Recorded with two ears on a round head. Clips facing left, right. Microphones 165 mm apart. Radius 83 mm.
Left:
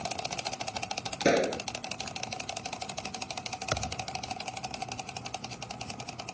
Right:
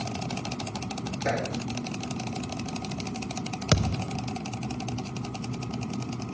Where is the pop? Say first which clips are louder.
Left 5 dB; 40° left (ahead or behind).